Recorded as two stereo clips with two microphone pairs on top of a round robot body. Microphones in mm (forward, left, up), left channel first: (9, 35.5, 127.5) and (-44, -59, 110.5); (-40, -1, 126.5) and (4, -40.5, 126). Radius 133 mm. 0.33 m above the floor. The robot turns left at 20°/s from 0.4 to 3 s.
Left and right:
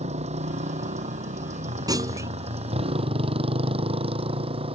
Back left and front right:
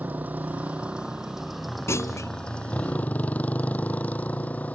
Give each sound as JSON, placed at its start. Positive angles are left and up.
{"t": 0.0, "sound": "a motorcycle", "azimuth_deg": -105}
{"t": 1.9, "sound": "a clunk", "azimuth_deg": -175}